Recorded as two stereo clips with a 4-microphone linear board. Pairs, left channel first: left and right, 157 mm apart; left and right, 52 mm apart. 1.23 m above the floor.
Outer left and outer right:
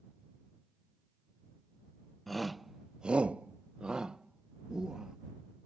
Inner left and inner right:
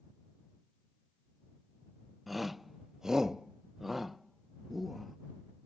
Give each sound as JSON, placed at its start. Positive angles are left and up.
{"t": 2.3, "sound": "a shout", "side_deg": 0}